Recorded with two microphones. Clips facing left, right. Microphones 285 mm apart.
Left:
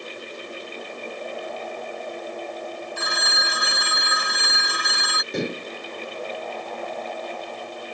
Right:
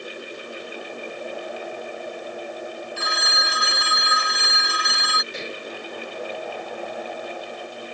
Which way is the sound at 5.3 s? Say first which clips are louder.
Left 10 dB; 55° left (ahead or behind).